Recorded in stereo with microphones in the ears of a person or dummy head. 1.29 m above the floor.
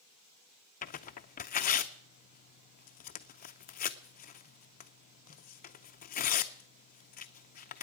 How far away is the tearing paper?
About 0.5 m.